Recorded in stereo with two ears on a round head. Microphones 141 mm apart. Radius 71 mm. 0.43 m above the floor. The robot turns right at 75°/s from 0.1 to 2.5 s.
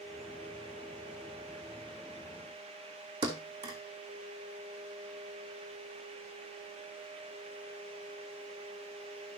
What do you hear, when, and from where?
3.2 s a thud: 25° right (ahead or behind), 2.5 m